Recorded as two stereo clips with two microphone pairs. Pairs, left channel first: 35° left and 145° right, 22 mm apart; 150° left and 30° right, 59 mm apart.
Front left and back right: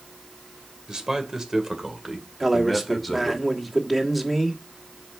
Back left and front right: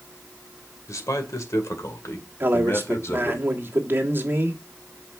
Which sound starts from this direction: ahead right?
A man speaking, at 2.4 s.